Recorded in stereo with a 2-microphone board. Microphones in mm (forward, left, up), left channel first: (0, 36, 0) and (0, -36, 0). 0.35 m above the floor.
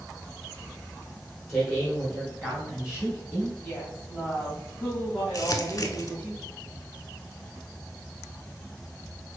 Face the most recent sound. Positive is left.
turn(degrees=45)  # may be behind; listen again after turning